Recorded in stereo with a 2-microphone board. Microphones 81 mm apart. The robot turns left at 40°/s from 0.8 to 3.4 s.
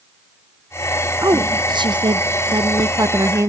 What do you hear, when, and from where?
1.2 s a woman speaking: 50° right, 0.9 m; by 3.5 s 140° right, 0.9 m